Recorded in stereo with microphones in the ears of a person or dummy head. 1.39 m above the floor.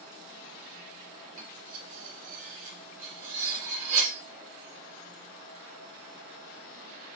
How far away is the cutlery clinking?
About 1.8 m.